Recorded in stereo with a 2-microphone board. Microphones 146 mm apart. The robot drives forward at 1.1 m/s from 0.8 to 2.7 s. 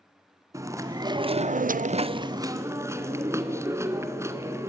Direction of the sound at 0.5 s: 20° right (ahead or behind).